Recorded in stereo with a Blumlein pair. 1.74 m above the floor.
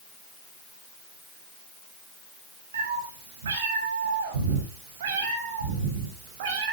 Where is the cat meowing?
65° right, 6.5 m; by 6.7 s 50° right, 5.5 m.